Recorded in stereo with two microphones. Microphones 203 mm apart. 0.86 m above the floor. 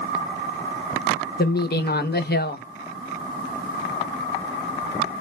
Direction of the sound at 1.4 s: 50° left (ahead or behind).